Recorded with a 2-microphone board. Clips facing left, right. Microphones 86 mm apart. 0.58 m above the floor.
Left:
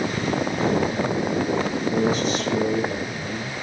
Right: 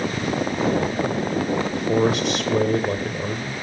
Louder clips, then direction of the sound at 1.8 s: Right 4 dB; 70° right (ahead or behind).